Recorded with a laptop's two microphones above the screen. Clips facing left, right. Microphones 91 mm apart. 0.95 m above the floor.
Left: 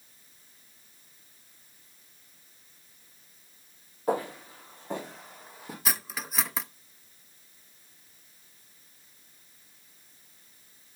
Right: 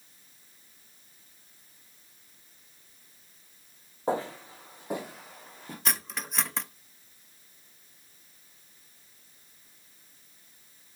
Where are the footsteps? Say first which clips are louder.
Left 1 dB; 25° right (ahead or behind), 3 m; by 5.8 s 10° left (ahead or behind), 2 m.